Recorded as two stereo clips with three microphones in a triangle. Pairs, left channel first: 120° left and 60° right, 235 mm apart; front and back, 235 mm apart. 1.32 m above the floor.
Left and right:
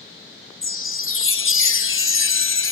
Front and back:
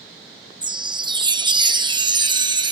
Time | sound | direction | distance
0.6 | a chime | 110° left | ?